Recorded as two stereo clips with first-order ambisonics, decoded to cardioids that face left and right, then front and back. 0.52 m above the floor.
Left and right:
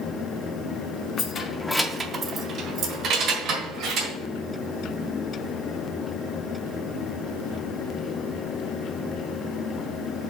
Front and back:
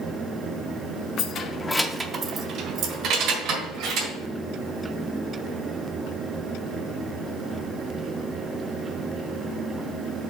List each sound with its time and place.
1.2 s keys jangling: 40° left, 0.7 m; by 4.1 s 140° right, 1.9 m